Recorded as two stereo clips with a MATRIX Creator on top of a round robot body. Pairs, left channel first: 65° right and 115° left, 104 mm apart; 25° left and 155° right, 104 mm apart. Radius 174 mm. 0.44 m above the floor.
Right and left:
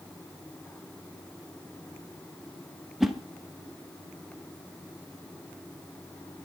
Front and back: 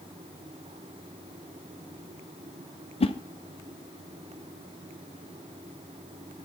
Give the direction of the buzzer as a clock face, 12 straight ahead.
No buzzer in this recording.